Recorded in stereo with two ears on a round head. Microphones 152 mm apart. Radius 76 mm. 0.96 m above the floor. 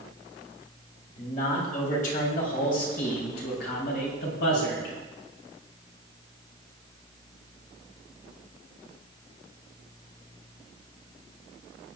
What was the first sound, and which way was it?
A man speaking, 45° left (ahead or behind).